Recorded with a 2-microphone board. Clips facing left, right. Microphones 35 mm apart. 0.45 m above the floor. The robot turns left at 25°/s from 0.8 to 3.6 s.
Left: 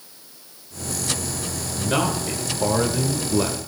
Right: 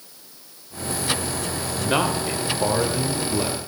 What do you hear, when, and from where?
1.8 s a man speaking: 155° right, 1.3 m; by 3.6 s 160° left, 1.3 m